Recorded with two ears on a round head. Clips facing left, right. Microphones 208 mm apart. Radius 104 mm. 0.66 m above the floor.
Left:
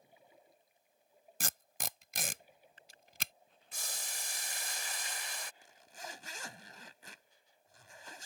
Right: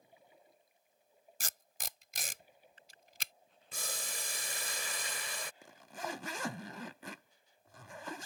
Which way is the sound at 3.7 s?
65° right (ahead or behind).